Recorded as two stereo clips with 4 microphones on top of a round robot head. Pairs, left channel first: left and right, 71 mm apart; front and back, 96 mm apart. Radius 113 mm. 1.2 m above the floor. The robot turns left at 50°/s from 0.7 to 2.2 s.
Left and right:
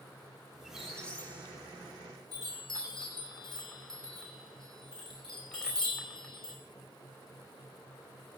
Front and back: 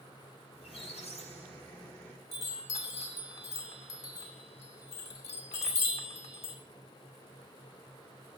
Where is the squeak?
5° right, 0.6 m; by 2.2 s 80° right, 0.6 m.